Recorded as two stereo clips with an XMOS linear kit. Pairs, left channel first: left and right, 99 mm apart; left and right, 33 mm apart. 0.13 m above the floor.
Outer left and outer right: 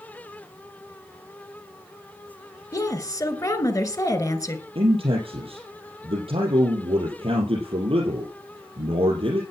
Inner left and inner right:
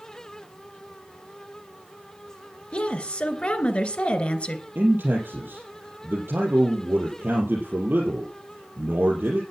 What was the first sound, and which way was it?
A woman speaking, 35° left (ahead or behind).